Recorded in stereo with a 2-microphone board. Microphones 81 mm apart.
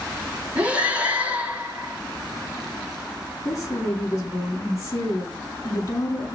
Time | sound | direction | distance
0.6 | breathing | 15° right (ahead or behind) | 4.5 m
3.5 | a woman speaking | 35° left (ahead or behind) | 6.5 m